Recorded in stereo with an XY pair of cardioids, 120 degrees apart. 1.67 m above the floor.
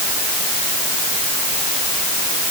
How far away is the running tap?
No running tap in this recording.